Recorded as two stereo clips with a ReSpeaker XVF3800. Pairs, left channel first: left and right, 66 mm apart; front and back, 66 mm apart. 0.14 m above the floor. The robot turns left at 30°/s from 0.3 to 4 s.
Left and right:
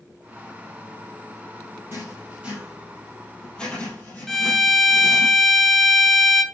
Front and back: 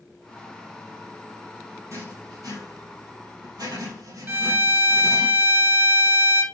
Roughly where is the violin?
Behind.